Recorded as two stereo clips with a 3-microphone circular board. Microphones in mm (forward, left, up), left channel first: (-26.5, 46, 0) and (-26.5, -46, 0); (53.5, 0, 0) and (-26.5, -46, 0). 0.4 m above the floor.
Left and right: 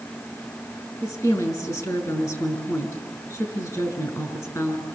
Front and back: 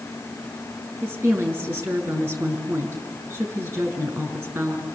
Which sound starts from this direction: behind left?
A woman speaking, at 1.0 s.